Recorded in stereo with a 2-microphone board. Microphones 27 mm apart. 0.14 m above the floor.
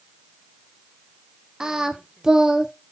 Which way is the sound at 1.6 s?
25° right (ahead or behind).